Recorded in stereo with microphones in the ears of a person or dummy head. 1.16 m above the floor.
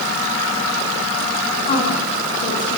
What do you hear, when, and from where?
1.6 s a woman speaking: 30° left (ahead or behind), 9.5 m; by 2.8 s 35° left (ahead or behind), 8 m